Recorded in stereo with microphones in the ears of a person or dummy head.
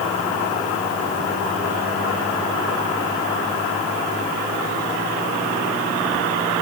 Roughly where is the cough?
I don't hear a cough.